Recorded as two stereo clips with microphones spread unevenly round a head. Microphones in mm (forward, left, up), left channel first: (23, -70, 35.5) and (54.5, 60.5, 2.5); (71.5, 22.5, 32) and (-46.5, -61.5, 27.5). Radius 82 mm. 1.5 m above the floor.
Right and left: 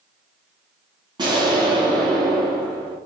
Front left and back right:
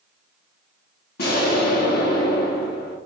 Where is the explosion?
15° left, 1.0 m.